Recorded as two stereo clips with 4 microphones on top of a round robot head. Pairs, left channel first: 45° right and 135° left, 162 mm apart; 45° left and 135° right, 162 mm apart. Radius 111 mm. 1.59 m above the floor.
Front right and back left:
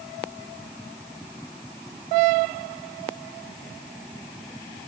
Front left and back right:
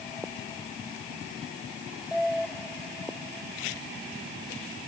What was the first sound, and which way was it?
Only background noise.